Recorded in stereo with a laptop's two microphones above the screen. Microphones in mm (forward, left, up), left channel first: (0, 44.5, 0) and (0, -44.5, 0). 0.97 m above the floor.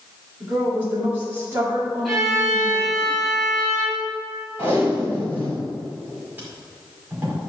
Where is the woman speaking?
20° right (ahead or behind), 2.5 m.